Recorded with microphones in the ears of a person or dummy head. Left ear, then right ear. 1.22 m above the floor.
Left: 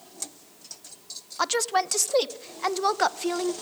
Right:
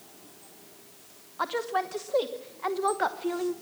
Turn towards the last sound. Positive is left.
turn(degrees=75)  # may be behind; listen again after turning